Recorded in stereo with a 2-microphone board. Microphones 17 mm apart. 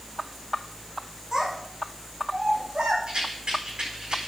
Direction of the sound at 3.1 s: 75° right (ahead or behind).